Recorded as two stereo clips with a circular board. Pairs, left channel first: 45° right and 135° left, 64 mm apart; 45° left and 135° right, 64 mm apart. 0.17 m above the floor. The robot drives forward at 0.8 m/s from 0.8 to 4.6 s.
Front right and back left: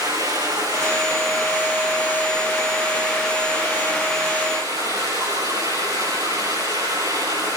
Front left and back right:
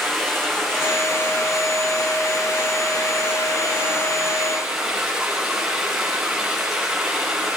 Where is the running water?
130° left, 9.5 m; by 7.6 s 140° left, 11.5 m.